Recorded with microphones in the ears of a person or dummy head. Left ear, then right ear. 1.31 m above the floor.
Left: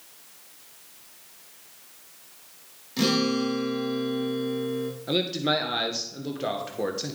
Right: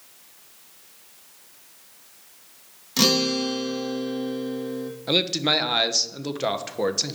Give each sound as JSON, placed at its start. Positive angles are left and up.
{"t": 3.0, "sound": "a guitar", "side_deg": -40, "distance_m": 1.3}
{"t": 5.1, "sound": "a man speaking", "side_deg": -30, "distance_m": 0.8}